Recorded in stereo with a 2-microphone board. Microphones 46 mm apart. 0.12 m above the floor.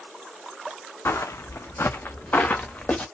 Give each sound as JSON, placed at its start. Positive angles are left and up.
{"t": 1.1, "sound": "footsteps", "side_deg": 75, "distance_m": 0.5}